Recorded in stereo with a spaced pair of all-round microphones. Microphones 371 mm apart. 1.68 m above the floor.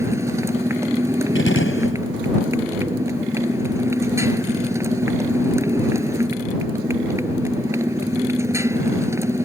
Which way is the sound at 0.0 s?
5° right (ahead or behind).